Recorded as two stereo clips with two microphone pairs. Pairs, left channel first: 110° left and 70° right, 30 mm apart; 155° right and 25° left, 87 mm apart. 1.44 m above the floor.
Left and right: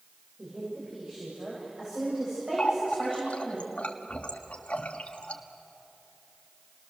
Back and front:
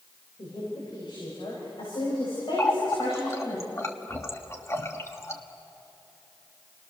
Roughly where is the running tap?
Behind left.